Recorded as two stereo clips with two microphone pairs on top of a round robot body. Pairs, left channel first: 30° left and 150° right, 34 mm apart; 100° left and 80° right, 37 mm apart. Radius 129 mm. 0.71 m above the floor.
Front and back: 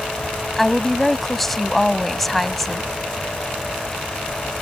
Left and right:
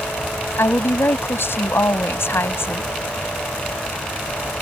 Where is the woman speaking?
120° left.